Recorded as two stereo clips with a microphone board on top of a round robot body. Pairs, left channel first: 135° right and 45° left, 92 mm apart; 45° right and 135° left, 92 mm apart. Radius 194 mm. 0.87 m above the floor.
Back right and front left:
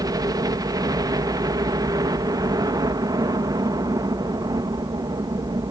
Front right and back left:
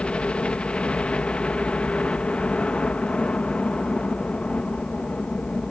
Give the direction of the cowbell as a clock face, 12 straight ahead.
I don't hear a cowbell.